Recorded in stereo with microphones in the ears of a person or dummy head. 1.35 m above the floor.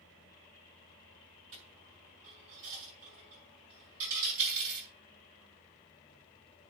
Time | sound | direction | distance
1.5 | a dropped coin | 45° right (ahead or behind) | 7 m